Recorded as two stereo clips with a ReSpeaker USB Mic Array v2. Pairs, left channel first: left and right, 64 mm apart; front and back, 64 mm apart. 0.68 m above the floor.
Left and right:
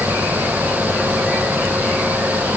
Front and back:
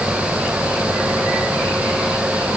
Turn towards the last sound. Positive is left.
No sound to turn to.